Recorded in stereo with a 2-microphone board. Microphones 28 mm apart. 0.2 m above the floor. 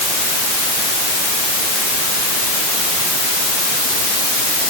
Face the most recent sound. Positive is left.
No sound to turn to.